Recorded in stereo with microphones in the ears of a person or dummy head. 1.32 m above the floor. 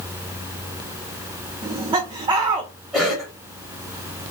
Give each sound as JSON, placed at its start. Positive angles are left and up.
{"t": 1.6, "sound": "laughter", "side_deg": -25, "distance_m": 0.6}
{"t": 2.9, "sound": "a cough", "side_deg": -5, "distance_m": 1.2}